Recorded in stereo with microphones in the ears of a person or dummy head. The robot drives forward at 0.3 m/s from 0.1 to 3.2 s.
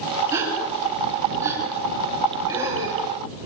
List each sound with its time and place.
0.3 s a gasp: 20° right (ahead or behind), 5 m